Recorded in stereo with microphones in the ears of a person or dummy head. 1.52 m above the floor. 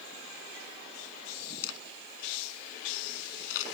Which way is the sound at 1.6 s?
80° left.